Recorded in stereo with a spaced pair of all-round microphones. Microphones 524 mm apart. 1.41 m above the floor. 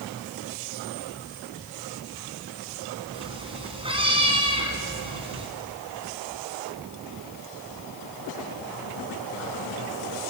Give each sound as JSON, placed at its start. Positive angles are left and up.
{"t": 3.1, "sound": "a cat meowing", "side_deg": -10, "distance_m": 3.0}